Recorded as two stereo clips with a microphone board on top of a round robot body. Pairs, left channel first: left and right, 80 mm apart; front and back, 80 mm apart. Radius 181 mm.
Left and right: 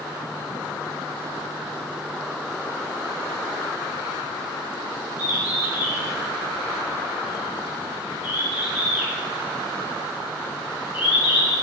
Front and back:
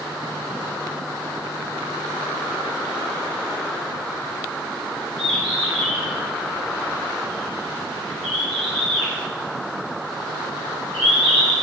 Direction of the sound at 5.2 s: 160° right.